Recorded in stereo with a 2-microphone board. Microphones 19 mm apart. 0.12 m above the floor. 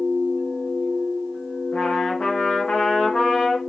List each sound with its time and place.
1.7 s a trumpet: 60° left (ahead or behind), 3.5 m